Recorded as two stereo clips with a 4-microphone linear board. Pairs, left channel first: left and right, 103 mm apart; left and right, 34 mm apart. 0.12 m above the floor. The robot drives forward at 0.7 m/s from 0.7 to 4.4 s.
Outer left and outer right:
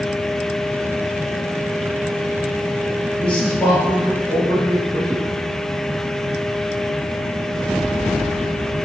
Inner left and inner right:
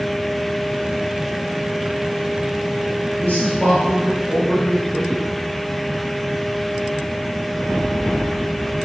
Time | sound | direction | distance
3.2 | a man speaking | 10° left (ahead or behind) | 3.5 m